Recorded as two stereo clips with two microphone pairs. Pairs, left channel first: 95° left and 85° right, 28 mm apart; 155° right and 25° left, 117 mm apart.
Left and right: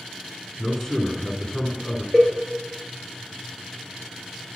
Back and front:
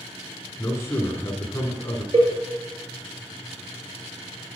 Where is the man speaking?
155° left, 1.4 m.